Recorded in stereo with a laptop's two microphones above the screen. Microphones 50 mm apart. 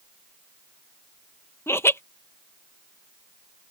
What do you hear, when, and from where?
1.7 s laughter: 55° left (ahead or behind)